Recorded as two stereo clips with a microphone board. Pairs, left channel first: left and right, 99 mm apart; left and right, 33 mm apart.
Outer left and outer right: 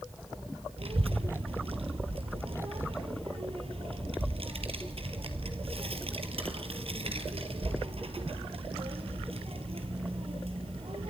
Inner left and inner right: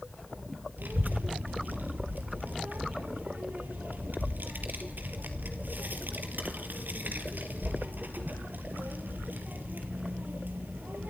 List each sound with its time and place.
0.8 s a child speaking: 75° right (ahead or behind), 3 m